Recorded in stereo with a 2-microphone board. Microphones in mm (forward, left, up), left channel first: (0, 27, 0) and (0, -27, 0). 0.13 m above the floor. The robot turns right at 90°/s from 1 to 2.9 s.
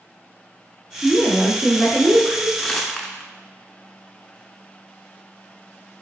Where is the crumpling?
15° left (ahead or behind), 0.6 m; by 3.3 s 5° left (ahead or behind), 0.6 m.